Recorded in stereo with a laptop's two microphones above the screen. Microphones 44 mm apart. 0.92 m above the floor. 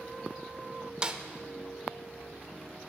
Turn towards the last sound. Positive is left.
turn(degrees=-20)  # may be behind; listen again after turning